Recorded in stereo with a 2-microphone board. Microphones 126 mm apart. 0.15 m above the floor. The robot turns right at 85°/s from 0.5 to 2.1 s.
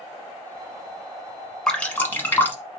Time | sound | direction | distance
1.7 | dripping | 5° left (ahead or behind) | 1.1 m